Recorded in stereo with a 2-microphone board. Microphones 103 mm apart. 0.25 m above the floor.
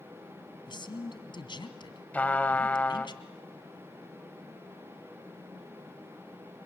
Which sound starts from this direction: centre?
A trumpet, at 2.1 s.